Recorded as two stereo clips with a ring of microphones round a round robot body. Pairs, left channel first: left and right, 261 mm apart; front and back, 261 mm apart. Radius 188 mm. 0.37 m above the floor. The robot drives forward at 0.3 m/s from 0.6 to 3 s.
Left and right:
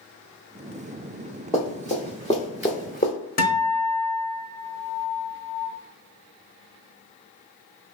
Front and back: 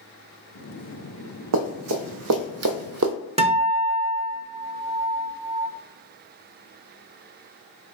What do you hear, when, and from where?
1.5 s running footsteps: 170° left, 1.0 m; by 3.1 s 155° left, 0.6 m
3.4 s a guitar: 125° left, 0.9 m